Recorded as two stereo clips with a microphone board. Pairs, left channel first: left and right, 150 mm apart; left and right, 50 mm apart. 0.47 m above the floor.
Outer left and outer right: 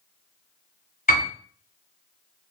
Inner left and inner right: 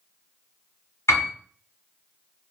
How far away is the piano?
About 1.4 m.